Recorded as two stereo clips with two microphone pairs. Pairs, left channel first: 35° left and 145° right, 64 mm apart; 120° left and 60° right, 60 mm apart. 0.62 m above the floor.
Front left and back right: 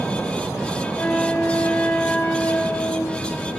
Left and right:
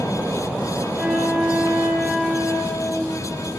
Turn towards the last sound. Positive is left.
turn(degrees=10)